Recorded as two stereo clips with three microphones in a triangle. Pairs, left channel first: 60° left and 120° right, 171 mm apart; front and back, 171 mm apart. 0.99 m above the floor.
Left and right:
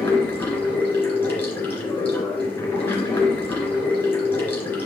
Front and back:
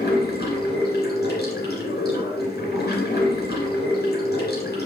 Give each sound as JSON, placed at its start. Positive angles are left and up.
{"t": 0.0, "sound": "running water", "azimuth_deg": -15, "distance_m": 3.0}